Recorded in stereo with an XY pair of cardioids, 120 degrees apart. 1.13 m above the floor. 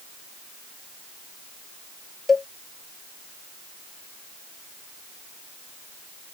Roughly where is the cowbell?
Ahead left.